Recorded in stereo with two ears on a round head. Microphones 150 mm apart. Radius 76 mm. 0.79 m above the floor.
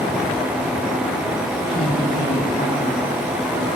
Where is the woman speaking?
65° left (ahead or behind), 6.5 m.